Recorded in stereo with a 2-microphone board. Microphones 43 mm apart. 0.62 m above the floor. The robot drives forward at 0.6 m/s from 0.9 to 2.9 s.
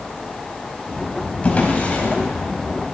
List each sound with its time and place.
1.4 s a drawer: 35° left (ahead or behind), 1.6 m; by 2.2 s 45° left (ahead or behind), 1.3 m